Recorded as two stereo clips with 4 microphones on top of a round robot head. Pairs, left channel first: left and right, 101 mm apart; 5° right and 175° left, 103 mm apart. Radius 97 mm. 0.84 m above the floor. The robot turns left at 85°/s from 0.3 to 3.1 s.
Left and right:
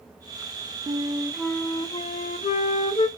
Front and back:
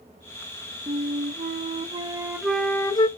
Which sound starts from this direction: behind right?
A flute, at 0.9 s.